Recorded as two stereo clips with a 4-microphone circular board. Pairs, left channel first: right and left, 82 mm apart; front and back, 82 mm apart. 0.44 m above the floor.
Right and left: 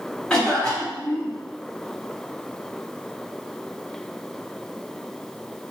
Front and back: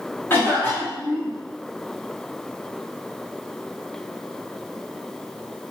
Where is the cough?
20° right, 1.3 m.